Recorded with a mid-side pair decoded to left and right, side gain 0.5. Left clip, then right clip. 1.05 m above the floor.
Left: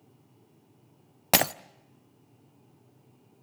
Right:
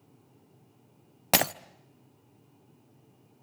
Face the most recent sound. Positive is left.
turn(degrees=10)